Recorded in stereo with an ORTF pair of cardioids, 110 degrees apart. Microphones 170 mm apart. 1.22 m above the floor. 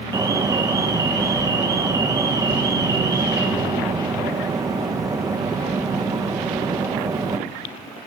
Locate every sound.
0.1 s an alarm: 20° right, 0.8 m